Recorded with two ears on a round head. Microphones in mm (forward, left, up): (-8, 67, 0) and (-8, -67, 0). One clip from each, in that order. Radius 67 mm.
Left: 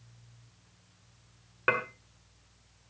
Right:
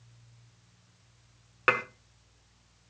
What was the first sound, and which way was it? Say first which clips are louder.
Dishes clattering: right 2 dB; 85° right.